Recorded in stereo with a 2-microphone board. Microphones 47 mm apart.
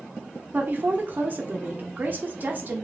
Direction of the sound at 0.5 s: 40° right (ahead or behind).